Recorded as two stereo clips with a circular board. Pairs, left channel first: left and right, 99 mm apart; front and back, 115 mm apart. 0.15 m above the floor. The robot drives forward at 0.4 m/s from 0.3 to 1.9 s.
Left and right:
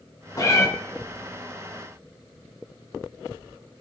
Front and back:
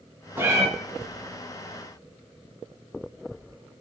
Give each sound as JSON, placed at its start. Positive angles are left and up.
{"t": 0.4, "sound": "a cat meowing", "azimuth_deg": 120, "distance_m": 0.6}